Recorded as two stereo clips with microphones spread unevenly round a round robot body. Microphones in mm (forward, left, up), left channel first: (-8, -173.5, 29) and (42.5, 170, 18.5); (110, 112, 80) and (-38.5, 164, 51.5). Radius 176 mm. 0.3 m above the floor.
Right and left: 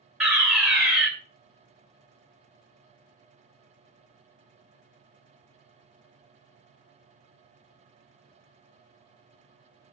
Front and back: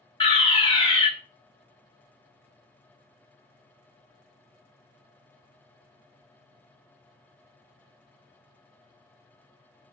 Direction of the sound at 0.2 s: 5° right.